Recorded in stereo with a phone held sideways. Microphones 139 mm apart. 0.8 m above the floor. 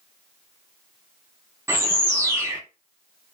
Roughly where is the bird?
Centre.